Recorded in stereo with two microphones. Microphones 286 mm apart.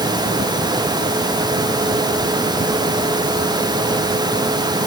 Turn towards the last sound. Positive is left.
No sound to turn to.